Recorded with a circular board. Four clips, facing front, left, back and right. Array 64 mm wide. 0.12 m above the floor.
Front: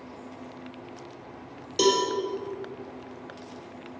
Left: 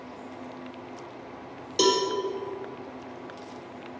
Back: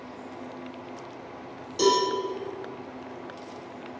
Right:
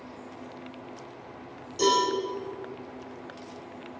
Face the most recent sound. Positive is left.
turn(degrees=60)